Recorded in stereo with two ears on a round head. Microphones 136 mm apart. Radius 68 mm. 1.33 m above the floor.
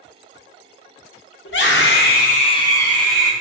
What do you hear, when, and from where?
1.4 s a scream: 85° left, 0.9 m; by 3.3 s 5° right (ahead or behind), 0.8 m